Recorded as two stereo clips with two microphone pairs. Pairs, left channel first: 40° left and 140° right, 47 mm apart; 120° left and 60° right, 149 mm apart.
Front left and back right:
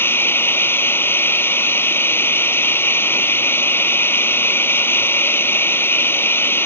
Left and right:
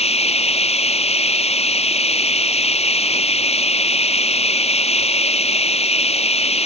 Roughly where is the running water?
Left.